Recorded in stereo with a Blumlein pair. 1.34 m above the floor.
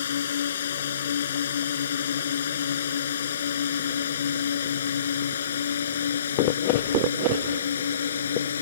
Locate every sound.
0.0 s a drone: 65° left; by 8.6 s 70° left